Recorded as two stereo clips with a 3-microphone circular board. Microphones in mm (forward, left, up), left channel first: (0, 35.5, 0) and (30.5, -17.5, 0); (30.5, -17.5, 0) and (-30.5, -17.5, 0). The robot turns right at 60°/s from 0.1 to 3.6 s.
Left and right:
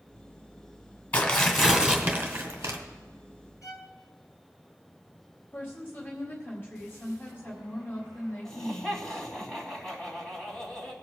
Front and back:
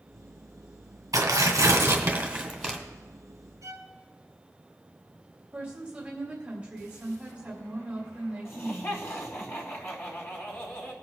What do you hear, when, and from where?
1.1 s tearing paper: 175° right, 1.8 m; by 2.8 s 75° right, 1.8 m
3.6 s a violin: 150° left, 1.5 m
5.5 s a woman speaking: 120° left, 1.7 m
8.4 s laughter: 40° left, 3 m